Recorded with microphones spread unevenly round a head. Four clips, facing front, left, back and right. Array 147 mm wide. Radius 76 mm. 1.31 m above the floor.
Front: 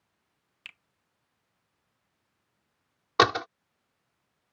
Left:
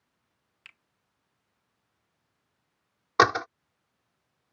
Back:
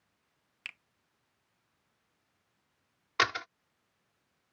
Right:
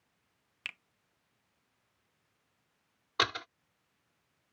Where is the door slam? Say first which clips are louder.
Left 12 dB, front 9 dB; 45° left.